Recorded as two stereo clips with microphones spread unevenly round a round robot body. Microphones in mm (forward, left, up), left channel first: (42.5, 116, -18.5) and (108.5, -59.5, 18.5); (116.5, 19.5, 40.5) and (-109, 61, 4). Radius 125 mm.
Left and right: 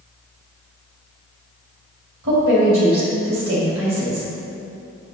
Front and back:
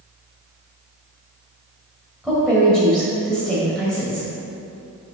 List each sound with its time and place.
2.2 s a woman speaking: 105° right, 2 m